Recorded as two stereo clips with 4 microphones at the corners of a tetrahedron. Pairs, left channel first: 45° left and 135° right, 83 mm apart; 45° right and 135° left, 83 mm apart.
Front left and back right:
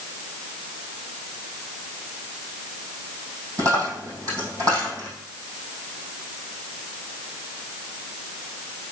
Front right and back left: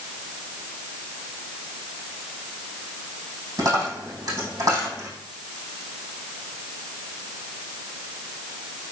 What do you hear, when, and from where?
3.6 s a dropped coin: straight behind, 3.5 m